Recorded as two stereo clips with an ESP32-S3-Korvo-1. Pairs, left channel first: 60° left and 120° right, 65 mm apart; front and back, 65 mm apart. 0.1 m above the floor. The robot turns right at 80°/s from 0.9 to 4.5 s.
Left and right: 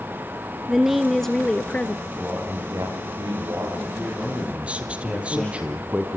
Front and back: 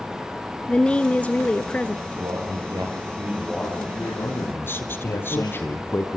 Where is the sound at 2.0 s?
140° left, 8.5 m; by 5.6 s 25° right, 8.5 m.